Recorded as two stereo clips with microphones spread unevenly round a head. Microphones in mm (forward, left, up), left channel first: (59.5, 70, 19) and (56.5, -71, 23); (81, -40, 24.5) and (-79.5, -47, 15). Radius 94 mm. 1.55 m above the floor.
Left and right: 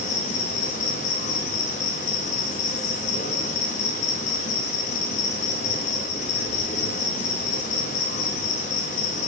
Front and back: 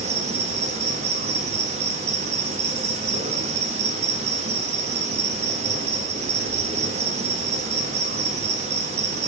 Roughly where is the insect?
Behind left.